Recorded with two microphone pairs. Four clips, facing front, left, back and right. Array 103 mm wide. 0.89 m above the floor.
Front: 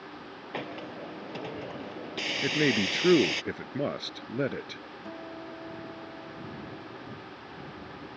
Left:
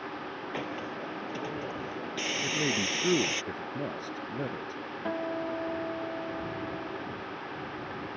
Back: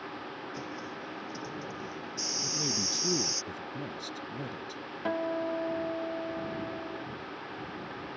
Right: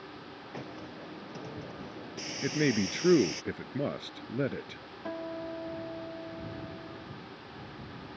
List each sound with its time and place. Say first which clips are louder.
0.5 s a hiss: left 5 dB, front 2 dB; 30° left
2.4 s a man speaking: right 5 dB, front 11 dB; 10° right
5.0 s a guitar: left 4 dB, back 12 dB; 165° left